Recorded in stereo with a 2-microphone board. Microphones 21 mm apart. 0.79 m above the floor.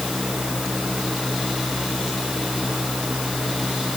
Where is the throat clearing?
I don't hear throat clearing.